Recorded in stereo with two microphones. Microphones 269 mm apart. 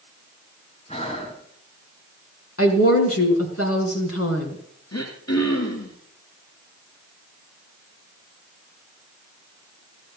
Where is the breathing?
25° left (ahead or behind), 2.5 m.